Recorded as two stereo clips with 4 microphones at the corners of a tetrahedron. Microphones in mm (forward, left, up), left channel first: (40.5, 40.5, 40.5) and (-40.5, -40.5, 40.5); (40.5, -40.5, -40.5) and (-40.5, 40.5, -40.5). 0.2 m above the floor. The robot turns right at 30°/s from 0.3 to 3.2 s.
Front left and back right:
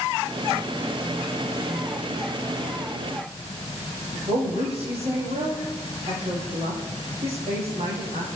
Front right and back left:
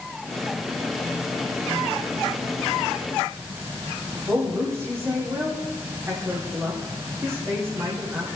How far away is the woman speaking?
About 9 m.